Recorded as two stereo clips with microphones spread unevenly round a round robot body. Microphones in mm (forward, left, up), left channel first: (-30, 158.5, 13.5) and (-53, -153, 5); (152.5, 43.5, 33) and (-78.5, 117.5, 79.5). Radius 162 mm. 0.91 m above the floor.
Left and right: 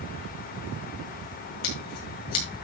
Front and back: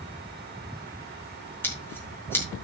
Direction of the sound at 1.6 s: 65° left.